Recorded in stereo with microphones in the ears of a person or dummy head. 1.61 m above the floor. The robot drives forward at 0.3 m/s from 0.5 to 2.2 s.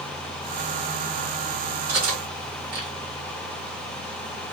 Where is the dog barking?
No dog barking in this recording.